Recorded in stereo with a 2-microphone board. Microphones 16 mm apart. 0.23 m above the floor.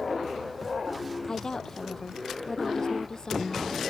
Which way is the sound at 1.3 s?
50° left (ahead or behind).